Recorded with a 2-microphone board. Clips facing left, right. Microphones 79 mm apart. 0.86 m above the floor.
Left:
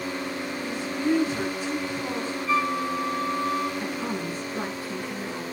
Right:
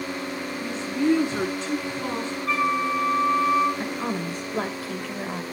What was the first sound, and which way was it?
A woman speaking, 90° right.